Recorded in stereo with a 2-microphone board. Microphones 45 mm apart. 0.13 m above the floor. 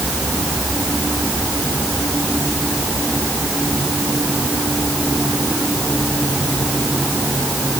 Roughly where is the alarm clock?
No alarm clock in this recording.